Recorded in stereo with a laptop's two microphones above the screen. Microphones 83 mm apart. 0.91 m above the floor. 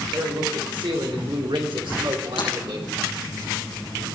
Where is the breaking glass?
65° left (ahead or behind), 5.5 m.